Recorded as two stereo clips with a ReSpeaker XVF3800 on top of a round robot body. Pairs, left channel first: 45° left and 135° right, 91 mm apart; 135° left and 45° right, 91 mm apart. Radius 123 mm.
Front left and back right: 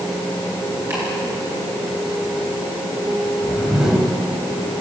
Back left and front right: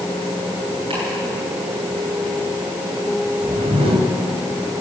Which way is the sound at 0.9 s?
75° right.